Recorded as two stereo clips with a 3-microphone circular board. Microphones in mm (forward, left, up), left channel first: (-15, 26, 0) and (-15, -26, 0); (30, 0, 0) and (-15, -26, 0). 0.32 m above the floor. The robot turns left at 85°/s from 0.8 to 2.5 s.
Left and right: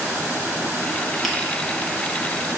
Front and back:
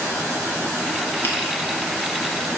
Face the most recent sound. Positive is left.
turn(degrees=-110)